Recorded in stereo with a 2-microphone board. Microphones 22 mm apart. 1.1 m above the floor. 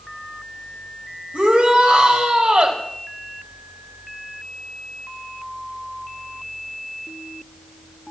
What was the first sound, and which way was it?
A shout, 65° right (ahead or behind).